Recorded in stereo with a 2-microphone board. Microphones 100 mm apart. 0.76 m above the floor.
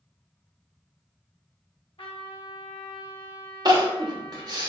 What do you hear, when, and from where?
2.0 s a trumpet: 65° left (ahead or behind), 0.9 m
3.6 s crying: 40° right (ahead or behind), 0.8 m